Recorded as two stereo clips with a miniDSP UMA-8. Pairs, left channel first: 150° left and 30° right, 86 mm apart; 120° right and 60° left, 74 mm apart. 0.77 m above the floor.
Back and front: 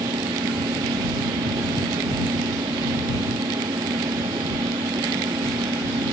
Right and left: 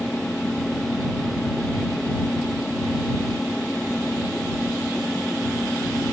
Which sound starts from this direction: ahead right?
An engine running, at 0.0 s.